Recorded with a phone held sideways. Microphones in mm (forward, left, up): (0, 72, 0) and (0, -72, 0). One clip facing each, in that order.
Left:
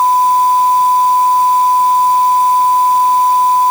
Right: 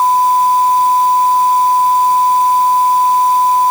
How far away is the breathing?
No breathing in this recording.